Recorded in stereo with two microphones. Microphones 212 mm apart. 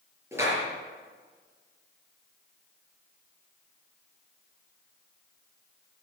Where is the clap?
10° right (ahead or behind), 6.5 m.